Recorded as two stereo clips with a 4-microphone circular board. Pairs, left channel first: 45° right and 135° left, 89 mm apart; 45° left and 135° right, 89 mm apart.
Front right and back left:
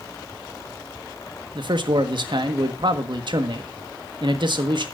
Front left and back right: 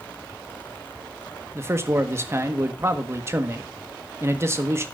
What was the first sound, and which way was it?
A man speaking, 165° left.